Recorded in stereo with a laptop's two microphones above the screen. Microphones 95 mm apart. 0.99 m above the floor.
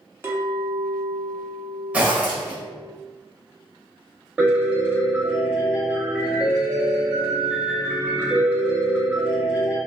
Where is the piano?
15° right (ahead or behind), 0.8 m.